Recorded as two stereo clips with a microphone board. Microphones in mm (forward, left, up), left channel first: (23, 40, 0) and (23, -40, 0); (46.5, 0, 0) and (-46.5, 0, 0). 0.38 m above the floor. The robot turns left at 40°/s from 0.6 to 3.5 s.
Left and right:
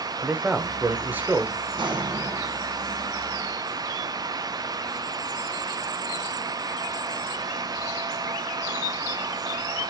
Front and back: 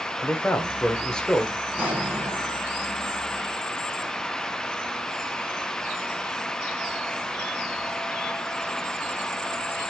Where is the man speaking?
45° right, 1.1 m; by 1.7 s 90° right, 1.1 m.